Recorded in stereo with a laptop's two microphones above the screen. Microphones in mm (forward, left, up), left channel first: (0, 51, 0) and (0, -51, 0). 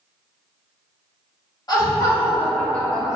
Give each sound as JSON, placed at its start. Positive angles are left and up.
{"t": 1.7, "sound": "laughter", "side_deg": 40, "distance_m": 1.2}